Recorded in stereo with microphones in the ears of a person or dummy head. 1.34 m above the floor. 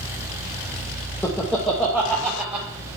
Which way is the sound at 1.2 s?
15° left (ahead or behind).